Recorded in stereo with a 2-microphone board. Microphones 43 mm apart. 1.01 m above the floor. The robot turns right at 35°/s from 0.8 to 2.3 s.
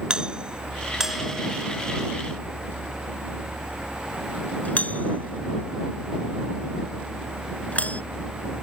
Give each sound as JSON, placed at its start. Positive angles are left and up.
{"t": 0.1, "sound": "a doorbell", "side_deg": -20}